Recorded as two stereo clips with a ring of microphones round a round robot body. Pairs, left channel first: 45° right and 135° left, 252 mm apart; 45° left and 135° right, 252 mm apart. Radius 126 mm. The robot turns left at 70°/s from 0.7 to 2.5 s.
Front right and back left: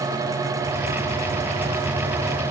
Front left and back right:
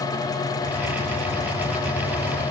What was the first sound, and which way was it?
Only background noise.